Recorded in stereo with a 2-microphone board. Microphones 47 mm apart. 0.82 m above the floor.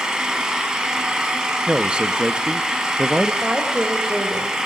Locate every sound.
0.0 s an engine running: 15° right (ahead or behind), 4.5 m
1.7 s a man speaking: 20° right (ahead or behind), 1.2 m
3.4 s a woman speaking: 20° right (ahead or behind), 4 m